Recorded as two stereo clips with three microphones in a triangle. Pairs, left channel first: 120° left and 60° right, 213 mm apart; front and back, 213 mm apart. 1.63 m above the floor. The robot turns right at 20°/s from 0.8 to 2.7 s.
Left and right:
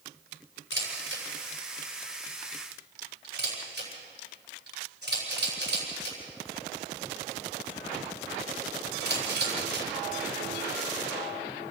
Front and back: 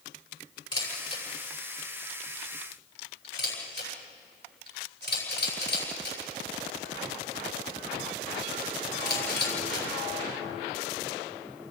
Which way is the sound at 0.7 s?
65° right.